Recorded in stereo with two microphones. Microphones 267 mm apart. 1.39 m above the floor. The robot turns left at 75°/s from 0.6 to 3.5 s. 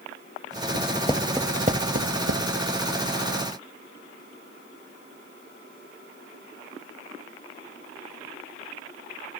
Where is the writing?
45° left (ahead or behind); by 2.5 s 90° right.